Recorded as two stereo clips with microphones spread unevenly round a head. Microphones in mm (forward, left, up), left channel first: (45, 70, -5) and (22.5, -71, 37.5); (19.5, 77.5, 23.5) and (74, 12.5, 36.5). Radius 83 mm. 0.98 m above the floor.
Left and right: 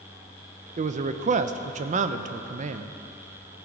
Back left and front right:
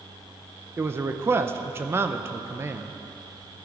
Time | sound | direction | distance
0.8 | a man speaking | 100° right | 0.6 m